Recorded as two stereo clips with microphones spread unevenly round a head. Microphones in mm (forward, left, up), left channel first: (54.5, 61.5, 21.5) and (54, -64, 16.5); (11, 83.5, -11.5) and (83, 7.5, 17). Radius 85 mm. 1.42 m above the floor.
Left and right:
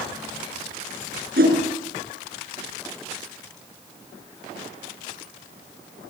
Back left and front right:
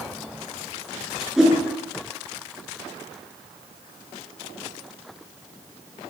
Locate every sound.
1.4 s a whoosh: 130° right, 5.5 m